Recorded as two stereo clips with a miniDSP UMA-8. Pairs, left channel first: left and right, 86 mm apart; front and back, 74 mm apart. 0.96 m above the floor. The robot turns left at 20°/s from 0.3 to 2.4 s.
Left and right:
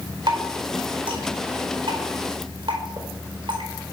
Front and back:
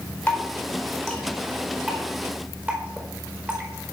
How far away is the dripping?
About 4.5 m.